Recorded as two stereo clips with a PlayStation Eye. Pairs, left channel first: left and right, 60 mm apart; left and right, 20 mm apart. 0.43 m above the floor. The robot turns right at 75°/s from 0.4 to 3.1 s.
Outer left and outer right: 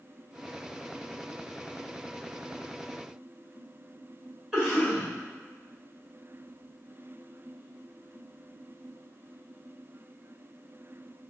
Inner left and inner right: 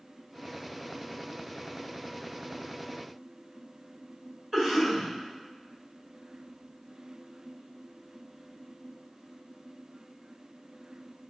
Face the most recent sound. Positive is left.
turn(degrees=-10)  # may be behind; listen again after turning